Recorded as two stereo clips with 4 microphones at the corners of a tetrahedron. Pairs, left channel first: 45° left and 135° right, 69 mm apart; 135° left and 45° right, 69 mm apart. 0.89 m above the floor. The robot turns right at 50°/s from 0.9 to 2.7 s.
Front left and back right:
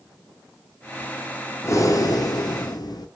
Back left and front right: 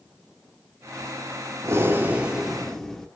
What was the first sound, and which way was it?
Breathing, straight ahead.